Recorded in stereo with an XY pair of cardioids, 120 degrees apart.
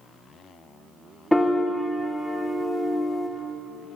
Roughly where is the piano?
Ahead.